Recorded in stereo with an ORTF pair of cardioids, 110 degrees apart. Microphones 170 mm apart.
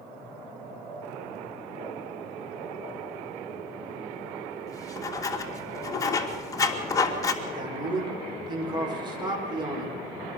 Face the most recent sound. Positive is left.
turn(degrees=-25)